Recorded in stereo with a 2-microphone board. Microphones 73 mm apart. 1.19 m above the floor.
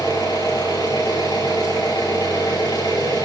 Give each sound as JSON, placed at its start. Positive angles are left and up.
{"t": 0.0, "sound": "an engine running", "side_deg": 70, "distance_m": 8.0}